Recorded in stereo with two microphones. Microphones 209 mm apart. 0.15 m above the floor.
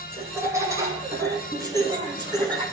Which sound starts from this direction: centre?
Laughter, at 0.1 s.